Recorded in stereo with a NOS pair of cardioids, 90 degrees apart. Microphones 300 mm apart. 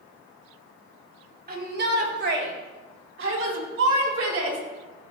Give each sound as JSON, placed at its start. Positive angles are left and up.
{"t": 1.5, "sound": "a shout", "azimuth_deg": -30, "distance_m": 3.0}